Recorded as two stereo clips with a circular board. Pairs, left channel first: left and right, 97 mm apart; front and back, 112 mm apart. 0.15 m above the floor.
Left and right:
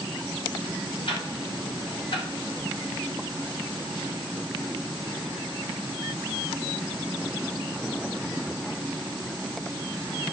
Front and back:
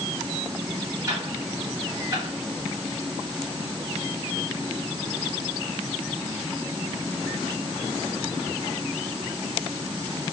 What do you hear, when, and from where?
1.1 s ticking: 120° left, 6.5 m